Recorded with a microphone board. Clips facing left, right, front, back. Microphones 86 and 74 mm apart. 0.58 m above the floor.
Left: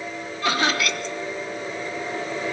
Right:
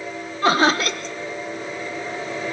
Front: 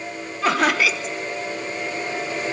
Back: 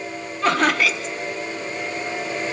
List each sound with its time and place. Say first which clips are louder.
0.4 s laughter: right 5 dB, even; 85° right, 0.9 m